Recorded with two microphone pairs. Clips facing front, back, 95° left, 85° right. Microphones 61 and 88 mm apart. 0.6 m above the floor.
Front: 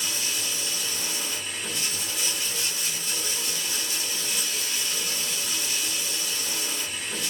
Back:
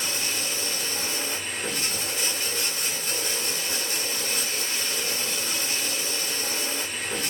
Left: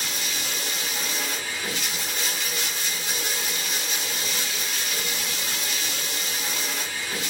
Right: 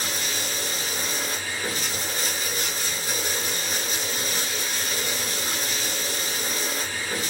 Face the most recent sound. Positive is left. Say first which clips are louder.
# back 2 dB, right 2 dB
turn(degrees=-135)